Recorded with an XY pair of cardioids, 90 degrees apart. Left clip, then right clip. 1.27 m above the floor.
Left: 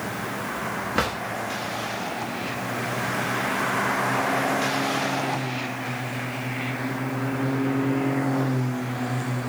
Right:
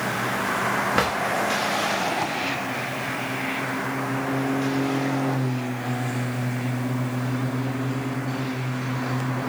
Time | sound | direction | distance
0.9 | a drawer | 25° right | 1.1 m